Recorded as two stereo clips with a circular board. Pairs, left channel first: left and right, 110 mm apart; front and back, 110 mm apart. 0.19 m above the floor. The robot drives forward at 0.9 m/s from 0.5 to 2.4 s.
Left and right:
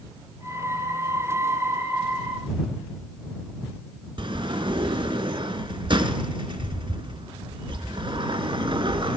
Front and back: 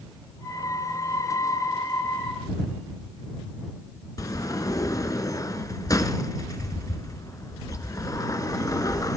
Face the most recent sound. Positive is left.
turn(degrees=-55)